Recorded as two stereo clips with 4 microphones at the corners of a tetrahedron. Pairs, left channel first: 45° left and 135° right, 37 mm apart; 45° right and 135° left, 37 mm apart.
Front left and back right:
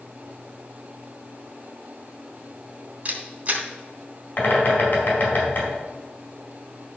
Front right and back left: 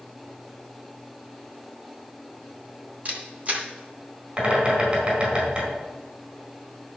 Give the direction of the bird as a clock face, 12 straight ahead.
9 o'clock.